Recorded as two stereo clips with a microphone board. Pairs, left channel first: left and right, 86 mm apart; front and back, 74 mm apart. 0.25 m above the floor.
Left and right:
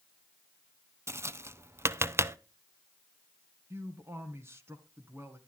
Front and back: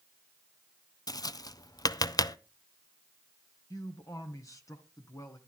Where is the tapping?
35° right, 0.5 m.